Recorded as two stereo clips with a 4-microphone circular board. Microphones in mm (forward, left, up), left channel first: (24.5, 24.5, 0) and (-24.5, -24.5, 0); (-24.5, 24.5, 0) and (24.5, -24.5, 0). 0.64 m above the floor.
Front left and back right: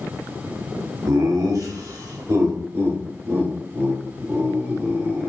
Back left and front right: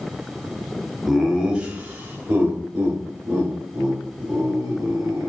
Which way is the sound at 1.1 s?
135° right.